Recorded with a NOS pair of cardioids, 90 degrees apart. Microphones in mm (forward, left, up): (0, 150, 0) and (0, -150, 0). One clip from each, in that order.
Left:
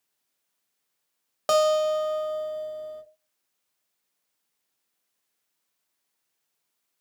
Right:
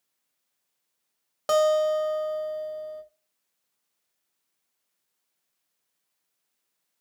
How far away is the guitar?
About 0.6 m.